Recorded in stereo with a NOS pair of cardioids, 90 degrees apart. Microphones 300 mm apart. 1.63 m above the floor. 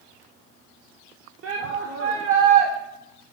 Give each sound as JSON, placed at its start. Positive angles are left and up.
{"t": 1.4, "sound": "a shout", "azimuth_deg": -45, "distance_m": 0.9}